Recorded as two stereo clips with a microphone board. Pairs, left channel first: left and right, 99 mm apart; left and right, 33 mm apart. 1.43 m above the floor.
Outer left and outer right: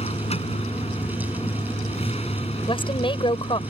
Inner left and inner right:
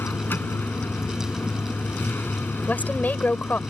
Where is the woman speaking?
55° left (ahead or behind).